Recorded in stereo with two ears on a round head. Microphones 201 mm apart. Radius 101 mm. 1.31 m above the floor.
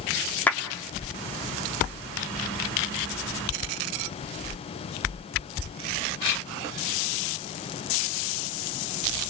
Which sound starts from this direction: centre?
A clap, at 0.5 s.